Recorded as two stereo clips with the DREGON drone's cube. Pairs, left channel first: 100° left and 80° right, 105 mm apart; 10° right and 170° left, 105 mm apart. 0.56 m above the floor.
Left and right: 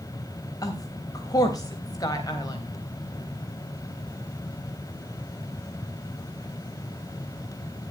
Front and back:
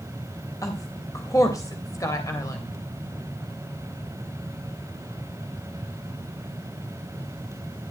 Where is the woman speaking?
45° left, 3 m.